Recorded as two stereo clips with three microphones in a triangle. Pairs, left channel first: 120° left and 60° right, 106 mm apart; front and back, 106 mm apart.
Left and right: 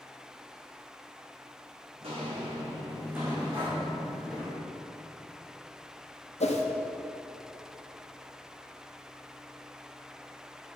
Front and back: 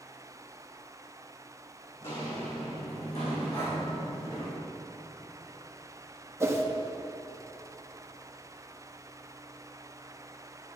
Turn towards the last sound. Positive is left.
turn(degrees=115)